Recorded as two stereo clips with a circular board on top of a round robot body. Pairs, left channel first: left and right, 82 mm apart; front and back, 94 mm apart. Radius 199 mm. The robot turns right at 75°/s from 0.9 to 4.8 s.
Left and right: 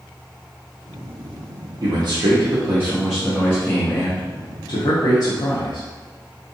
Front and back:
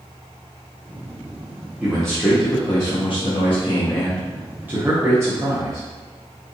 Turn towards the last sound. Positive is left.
turn(degrees=120)